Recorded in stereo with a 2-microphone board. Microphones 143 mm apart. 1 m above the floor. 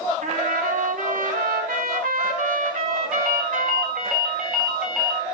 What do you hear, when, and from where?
0.2 s a trumpet: 80° right, 3 m
3.1 s a ringtone: 5° right (ahead or behind), 4.5 m